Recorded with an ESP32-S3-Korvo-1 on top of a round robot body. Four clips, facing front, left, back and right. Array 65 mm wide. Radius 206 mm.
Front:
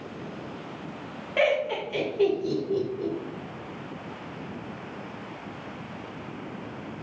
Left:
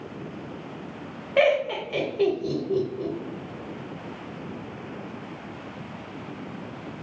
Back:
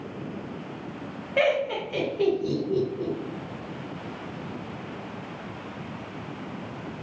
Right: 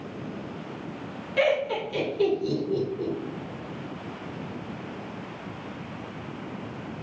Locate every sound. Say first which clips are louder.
1.4 s laughter: left 3 dB, back 1 dB; 85° left, 1.4 m